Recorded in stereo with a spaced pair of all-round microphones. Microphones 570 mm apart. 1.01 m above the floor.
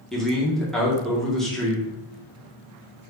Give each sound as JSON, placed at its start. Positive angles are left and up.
{"t": 0.1, "sound": "a man speaking", "side_deg": 0, "distance_m": 0.7}